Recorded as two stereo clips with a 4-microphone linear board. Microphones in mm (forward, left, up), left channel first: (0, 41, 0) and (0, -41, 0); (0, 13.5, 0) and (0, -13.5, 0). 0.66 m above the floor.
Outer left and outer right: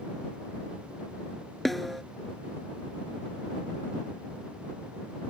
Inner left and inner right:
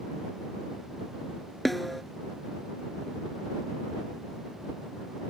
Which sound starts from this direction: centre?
A snare drum, at 1.6 s.